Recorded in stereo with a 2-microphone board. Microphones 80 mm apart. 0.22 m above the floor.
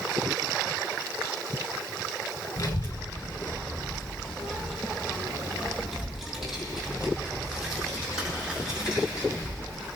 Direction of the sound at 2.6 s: 45° left (ahead or behind).